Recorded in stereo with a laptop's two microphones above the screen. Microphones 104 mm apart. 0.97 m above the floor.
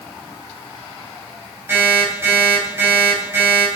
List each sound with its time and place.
1.7 s an alarm clock: 20° right (ahead or behind), 3.5 m